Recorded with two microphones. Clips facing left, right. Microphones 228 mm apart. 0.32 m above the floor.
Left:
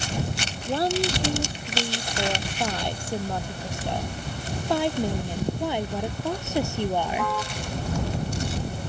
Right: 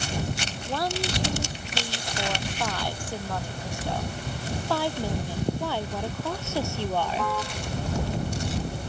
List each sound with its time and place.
0.7 s a woman speaking: 25° left (ahead or behind); by 7.3 s 15° left (ahead or behind)